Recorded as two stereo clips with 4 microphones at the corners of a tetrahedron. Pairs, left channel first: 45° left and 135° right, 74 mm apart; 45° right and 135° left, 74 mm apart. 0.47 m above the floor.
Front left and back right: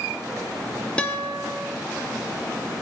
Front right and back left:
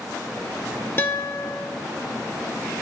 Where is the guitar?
20° right, 1.2 m.